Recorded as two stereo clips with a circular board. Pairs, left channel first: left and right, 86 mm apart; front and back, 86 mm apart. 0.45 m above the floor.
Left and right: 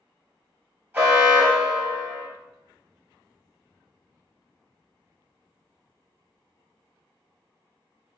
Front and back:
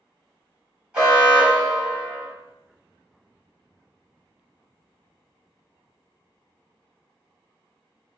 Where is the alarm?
120° right, 2.0 m.